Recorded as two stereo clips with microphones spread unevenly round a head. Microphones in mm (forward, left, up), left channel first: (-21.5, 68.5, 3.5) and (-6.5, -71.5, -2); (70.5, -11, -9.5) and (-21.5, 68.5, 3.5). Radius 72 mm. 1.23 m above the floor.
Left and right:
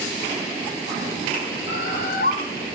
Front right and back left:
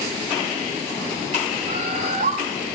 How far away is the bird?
About 4.5 m.